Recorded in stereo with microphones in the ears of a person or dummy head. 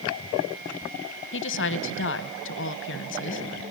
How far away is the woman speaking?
About 0.9 m.